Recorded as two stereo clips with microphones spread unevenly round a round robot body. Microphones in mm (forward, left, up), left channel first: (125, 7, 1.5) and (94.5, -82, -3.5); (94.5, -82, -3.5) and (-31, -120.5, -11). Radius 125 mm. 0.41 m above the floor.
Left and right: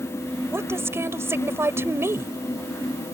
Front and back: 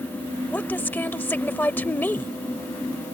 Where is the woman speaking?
55° right.